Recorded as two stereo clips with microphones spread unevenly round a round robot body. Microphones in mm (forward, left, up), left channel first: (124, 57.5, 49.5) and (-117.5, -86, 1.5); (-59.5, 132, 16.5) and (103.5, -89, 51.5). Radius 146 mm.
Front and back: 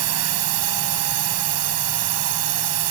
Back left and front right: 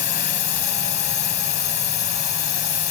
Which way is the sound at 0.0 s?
175° right.